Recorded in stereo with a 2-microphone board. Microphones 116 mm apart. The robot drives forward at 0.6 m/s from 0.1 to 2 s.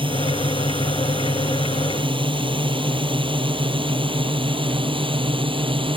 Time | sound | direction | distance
0.0 | a drone | 45° right (ahead or behind) | ?